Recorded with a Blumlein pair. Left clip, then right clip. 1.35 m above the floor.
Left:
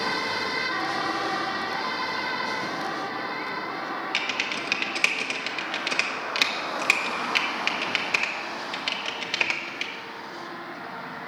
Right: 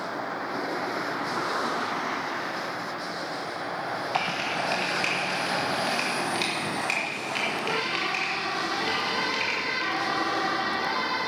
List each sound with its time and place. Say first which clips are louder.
4.1 s typing on a keyboard: even; 25° left, 1.6 m